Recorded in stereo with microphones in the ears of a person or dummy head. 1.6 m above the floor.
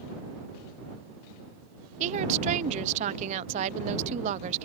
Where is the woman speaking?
40° right (ahead or behind).